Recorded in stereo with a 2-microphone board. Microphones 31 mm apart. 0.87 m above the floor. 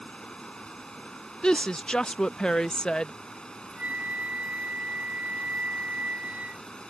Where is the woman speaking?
25° left (ahead or behind).